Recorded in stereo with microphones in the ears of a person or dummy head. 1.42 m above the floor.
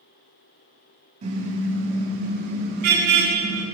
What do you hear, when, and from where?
1.2 s a car horn: 40° right (ahead or behind), 5 m; by 3.6 s 60° right (ahead or behind), 7.5 m